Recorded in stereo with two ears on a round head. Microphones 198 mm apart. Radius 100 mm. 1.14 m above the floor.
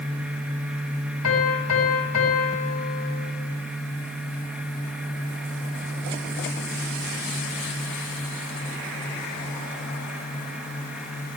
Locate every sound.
1.2 s a piano: 80° left, 5 m